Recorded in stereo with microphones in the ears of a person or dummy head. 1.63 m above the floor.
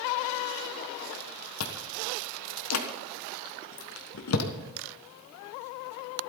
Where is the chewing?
80° left, 1.3 m.